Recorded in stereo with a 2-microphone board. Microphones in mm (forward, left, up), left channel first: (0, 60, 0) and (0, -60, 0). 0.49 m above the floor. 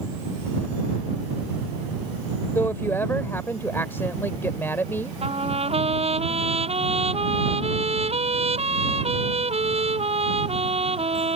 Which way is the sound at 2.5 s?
20° left (ahead or behind).